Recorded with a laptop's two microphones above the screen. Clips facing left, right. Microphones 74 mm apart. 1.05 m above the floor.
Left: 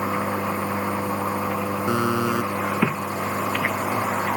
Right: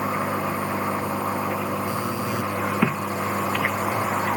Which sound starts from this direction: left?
A buzzer, at 1.9 s.